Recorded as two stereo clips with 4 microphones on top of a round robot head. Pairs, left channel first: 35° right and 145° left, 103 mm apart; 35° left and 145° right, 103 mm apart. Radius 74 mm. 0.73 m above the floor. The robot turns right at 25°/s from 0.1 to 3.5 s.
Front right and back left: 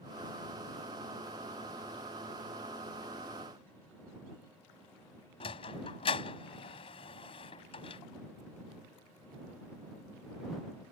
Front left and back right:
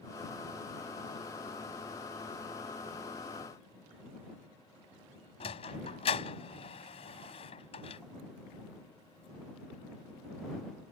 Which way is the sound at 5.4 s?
Straight ahead.